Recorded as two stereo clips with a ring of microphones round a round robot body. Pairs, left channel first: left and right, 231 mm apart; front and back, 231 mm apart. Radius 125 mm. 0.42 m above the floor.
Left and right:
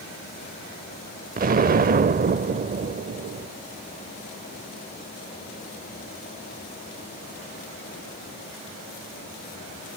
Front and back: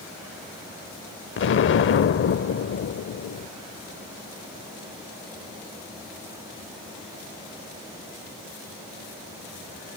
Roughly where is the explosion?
Ahead right.